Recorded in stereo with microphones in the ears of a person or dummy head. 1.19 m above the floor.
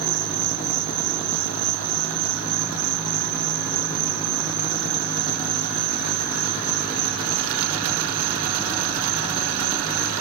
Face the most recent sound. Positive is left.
turn(degrees=-50)  # may be behind; listen again after turning